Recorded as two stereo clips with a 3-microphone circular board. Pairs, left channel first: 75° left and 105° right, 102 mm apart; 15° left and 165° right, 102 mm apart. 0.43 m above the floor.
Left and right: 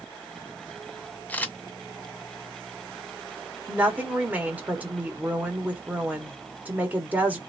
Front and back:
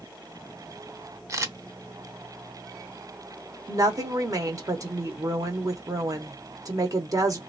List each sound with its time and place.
1.3 s a camera shutter: 145° left, 0.6 m
3.7 s a woman speaking: 165° right, 1.0 m